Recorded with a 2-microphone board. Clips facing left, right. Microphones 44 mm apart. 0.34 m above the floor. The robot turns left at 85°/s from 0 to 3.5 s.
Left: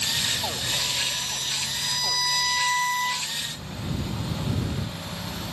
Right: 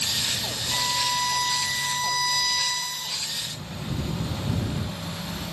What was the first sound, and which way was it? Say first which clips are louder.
A violin: right 7 dB; 40° right.